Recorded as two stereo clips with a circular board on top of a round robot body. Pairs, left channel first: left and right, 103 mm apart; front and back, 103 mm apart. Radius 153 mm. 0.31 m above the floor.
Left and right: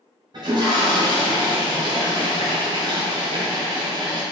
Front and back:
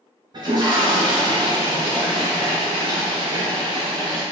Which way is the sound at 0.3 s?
135° right.